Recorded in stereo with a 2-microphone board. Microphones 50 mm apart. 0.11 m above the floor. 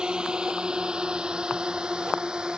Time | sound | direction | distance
0.0 | a drone | 15° right (ahead or behind) | ?